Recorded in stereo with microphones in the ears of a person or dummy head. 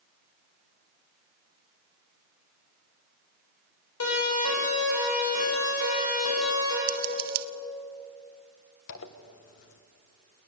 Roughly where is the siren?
Left.